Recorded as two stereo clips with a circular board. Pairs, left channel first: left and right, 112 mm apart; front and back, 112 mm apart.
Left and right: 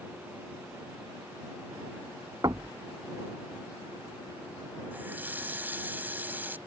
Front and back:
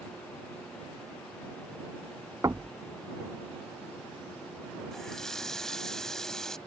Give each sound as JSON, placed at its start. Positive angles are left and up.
{"t": 2.4, "sound": "knocking", "azimuth_deg": -130}
{"t": 4.9, "sound": "a running tap", "azimuth_deg": -75}